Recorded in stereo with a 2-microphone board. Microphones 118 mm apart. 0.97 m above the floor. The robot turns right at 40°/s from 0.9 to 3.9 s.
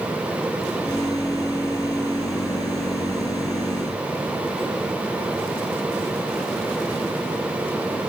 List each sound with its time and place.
Only background noise.